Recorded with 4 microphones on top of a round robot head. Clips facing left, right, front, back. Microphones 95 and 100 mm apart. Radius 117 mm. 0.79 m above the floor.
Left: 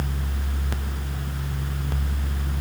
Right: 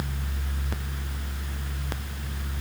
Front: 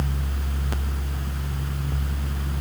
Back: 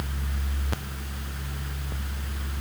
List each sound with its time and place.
Only background noise.